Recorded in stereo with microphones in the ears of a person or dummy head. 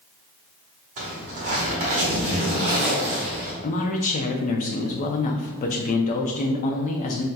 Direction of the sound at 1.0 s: 35° right (ahead or behind).